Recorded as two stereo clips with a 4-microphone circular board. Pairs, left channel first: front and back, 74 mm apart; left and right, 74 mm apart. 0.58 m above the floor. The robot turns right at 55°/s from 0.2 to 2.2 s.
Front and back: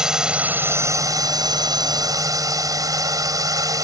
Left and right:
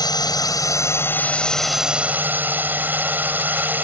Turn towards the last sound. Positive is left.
turn(degrees=-150)